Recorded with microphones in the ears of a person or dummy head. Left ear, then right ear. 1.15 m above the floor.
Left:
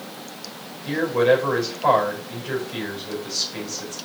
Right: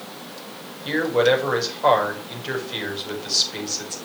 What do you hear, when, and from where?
0.8 s a man speaking: 25° right (ahead or behind), 5 m